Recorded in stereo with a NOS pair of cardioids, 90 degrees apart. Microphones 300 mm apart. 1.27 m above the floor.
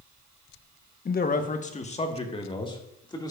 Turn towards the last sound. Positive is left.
turn(degrees=15)